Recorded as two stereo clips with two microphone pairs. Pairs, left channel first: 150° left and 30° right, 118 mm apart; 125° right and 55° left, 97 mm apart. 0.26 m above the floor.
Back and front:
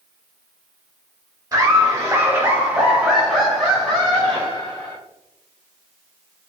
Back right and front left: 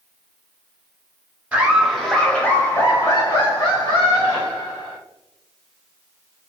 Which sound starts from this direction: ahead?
Laughter, at 1.5 s.